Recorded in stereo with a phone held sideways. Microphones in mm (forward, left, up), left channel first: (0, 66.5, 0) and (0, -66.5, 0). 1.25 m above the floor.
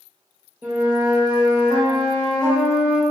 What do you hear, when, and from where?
0.6 s a flute: 15° right (ahead or behind), 1.1 m